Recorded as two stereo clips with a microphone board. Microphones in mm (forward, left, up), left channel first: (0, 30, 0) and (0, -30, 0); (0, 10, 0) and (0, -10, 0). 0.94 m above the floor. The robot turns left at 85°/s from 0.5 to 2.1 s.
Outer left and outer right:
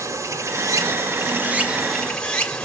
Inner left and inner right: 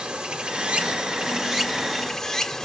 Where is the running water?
65° right, 1.2 m; by 2.7 s 160° left, 1.2 m.